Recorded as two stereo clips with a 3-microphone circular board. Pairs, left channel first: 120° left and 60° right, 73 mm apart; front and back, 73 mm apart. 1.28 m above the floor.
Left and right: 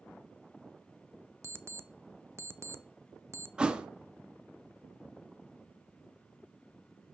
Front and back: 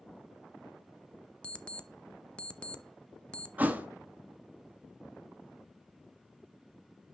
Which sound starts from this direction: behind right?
A thud, at 3.6 s.